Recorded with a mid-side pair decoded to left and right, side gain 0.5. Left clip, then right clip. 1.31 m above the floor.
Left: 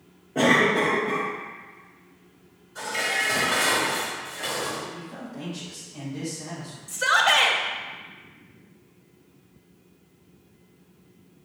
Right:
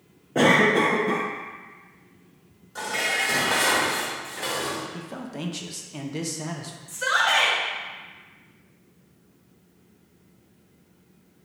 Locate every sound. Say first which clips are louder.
0.3 s a cough: right 1 dB; 45° right, 1.1 m
2.8 s dishes clattering: right 1 dB; 60° right, 1.8 m
4.9 s a man speaking: right 2 dB; 65° right, 0.8 m
6.9 s a shout: left 2 dB; 30° left, 1.2 m